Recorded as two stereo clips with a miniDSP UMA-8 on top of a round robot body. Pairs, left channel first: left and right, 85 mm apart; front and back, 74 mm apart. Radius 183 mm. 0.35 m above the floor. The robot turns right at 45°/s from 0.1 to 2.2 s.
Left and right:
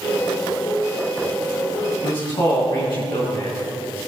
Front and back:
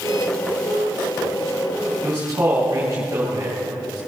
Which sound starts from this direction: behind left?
A man speaking, at 2.0 s.